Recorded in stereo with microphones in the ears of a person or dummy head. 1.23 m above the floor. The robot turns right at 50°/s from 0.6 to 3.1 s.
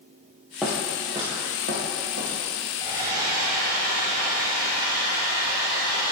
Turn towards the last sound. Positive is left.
turn(degrees=-15)  # may be behind; listen again after turning